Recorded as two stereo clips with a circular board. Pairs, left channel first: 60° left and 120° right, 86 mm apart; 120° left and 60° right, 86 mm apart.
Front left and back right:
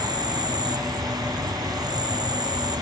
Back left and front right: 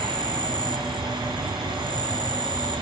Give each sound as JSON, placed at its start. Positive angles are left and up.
{"t": 0.0, "sound": "an insect", "azimuth_deg": -80}